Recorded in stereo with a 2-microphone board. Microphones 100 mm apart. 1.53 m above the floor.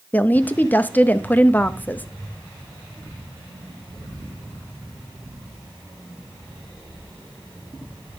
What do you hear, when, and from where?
0.1 s a woman speaking: 15° left (ahead or behind), 0.5 m